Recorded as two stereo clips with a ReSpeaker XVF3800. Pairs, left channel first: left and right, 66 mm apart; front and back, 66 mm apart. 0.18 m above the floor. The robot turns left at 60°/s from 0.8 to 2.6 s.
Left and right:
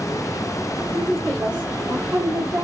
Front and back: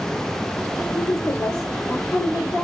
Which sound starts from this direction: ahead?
A woman speaking, at 0.9 s.